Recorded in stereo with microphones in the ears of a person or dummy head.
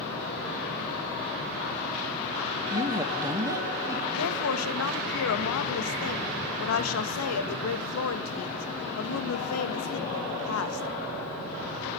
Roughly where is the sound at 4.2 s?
Left.